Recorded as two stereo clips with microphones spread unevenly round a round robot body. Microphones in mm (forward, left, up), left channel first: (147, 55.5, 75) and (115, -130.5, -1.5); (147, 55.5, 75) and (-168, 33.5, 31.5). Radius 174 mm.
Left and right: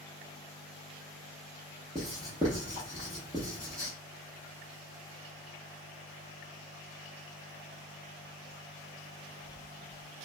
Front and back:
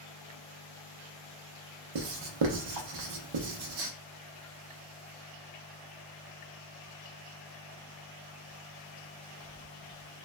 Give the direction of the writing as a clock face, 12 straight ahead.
6 o'clock.